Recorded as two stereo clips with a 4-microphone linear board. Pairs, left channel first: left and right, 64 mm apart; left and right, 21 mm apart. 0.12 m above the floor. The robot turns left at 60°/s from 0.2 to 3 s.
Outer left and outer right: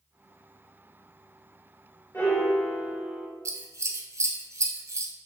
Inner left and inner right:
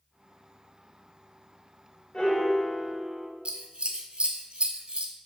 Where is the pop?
I don't hear a pop.